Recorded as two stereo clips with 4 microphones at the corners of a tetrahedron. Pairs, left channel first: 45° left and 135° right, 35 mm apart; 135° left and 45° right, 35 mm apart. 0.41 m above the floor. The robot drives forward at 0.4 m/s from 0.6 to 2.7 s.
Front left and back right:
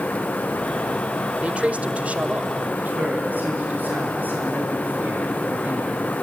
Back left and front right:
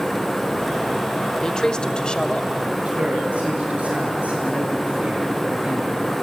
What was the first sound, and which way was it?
A man speaking, 165° right.